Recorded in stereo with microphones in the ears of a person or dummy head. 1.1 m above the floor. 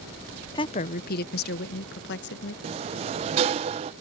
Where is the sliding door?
35° right (ahead or behind).